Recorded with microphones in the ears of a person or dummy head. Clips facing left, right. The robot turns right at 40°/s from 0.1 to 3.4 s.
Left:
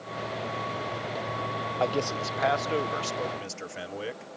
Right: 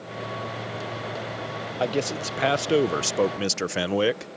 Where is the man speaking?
165° right; by 4.3 s 100° right.